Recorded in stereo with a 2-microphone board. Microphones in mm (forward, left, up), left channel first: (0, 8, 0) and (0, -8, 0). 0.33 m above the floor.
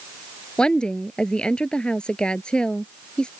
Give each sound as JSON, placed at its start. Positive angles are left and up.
{"t": 0.6, "sound": "a woman speaking", "side_deg": 65}